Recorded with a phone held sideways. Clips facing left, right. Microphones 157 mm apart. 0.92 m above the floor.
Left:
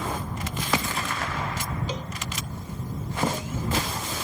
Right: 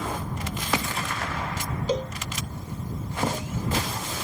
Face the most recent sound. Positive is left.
turn(degrees=-40)  # may be behind; listen again after turning